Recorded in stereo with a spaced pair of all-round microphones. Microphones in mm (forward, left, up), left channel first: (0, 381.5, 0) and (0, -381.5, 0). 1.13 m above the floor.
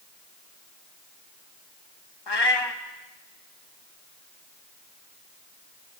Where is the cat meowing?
35° left (ahead or behind), 0.9 m.